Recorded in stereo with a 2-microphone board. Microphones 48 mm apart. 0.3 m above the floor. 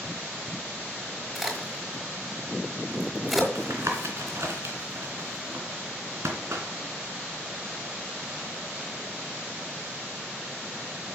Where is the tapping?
75° right (ahead or behind), 2.5 m.